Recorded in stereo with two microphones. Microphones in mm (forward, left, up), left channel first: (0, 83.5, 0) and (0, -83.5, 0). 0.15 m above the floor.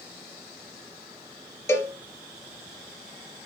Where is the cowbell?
15° left (ahead or behind), 2.5 m.